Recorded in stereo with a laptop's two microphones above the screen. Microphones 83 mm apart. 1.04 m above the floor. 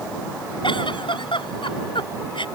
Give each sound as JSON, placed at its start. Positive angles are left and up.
{"t": 0.6, "sound": "a giggle", "side_deg": 85}